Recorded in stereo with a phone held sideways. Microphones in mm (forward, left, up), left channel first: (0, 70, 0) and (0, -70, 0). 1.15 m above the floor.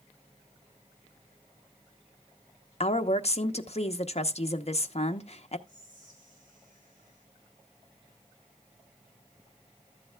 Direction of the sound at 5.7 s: 70° right (ahead or behind).